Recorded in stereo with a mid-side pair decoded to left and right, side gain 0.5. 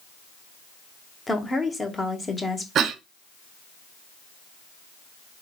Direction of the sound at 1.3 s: 20° left.